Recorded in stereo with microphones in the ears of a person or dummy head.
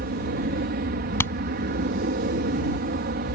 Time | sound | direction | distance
0.0 | an aircraft | 50° right (ahead or behind) | ?
1.2 | hammering | 15° left (ahead or behind) | ?